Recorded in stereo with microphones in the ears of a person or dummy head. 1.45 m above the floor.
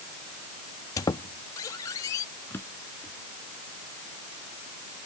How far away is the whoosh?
No whoosh in this recording.